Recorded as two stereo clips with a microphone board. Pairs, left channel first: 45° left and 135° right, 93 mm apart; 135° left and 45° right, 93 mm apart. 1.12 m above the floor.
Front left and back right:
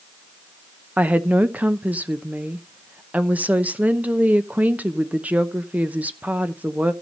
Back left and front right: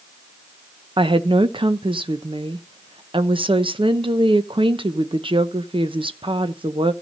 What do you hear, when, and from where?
1.0 s a woman speaking: 60° right, 0.8 m